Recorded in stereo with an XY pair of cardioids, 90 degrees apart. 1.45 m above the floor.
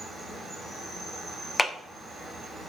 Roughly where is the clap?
Ahead.